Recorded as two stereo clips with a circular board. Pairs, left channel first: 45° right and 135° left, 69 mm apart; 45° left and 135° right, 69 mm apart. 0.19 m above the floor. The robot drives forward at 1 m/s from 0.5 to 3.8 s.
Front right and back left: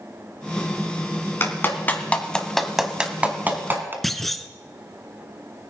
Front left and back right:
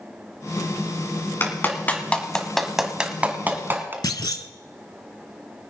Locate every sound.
1.4 s a clap: straight ahead, 1.6 m; by 3.9 s straight behind, 1.5 m
4.0 s a clunk: 40° left, 0.5 m